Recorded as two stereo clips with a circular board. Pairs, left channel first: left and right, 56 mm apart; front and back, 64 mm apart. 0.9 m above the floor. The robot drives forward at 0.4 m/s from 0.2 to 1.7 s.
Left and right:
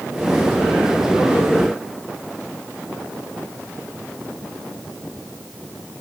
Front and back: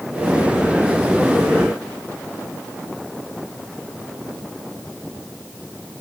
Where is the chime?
I don't hear a chime.